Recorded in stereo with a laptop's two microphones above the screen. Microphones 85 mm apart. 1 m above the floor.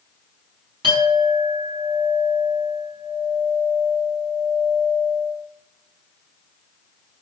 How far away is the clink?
About 6 m.